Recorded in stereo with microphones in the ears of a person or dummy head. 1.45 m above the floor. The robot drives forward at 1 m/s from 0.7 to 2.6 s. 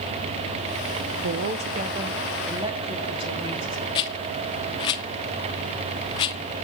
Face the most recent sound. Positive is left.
turn(degrees=20)  # may be behind; listen again after turning